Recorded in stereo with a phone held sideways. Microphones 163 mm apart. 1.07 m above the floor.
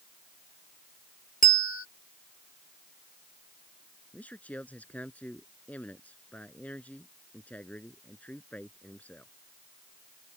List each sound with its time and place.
1.4 s a bell: 60° left (ahead or behind)
4.1 s a man speaking: 10° left (ahead or behind)